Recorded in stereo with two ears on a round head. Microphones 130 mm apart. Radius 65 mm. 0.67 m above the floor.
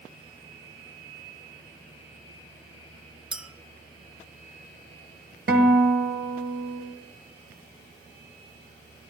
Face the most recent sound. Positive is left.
turn(degrees=-75)  # may be behind; listen again after turning